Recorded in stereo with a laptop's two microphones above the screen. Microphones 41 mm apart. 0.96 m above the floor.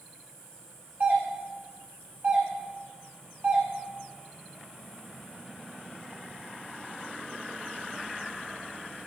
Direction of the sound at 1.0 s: 55° right (ahead or behind).